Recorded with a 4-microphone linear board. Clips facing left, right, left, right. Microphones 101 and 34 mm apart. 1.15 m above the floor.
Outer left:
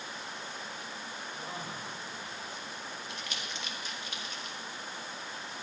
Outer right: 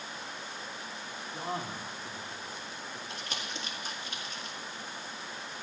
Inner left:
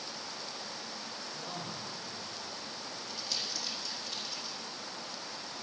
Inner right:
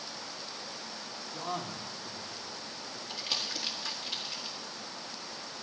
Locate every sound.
1.3 s a man speaking: 45° right (ahead or behind), 1.9 m
3.1 s crumpling: 40° right (ahead or behind), 1.9 m